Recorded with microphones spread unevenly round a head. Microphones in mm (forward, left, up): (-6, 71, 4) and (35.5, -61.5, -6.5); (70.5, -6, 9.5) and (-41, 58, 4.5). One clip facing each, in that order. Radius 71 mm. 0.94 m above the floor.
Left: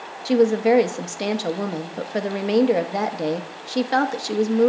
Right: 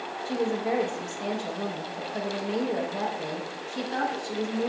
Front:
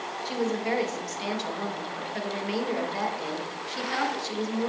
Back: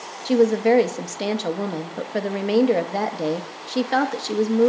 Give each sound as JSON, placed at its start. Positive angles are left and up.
{"t": 0.2, "sound": "a woman speaking", "azimuth_deg": 130, "distance_m": 0.8}